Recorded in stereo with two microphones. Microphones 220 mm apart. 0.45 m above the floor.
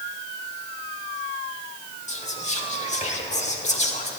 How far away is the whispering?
About 1.1 m.